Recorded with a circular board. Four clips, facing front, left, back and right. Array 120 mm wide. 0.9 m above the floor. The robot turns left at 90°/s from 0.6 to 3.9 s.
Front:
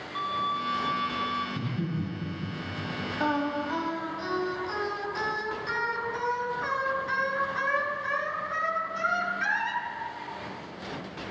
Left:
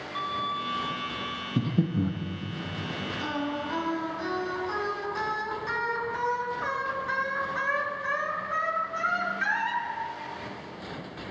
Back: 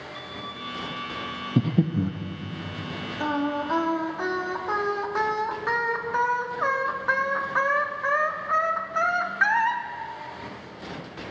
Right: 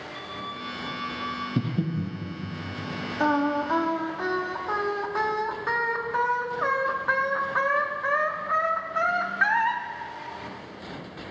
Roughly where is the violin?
Ahead left.